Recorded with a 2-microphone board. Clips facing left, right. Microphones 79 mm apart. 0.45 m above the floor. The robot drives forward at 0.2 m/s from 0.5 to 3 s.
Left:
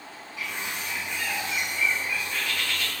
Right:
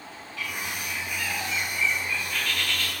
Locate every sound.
0.4 s a bird: 20° left (ahead or behind), 1.0 m; by 2.9 s 15° left (ahead or behind), 1.3 m